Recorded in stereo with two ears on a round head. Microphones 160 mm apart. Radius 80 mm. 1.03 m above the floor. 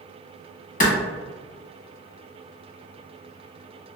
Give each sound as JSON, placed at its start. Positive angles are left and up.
{"t": 0.8, "sound": "a clap", "side_deg": 45, "distance_m": 1.1}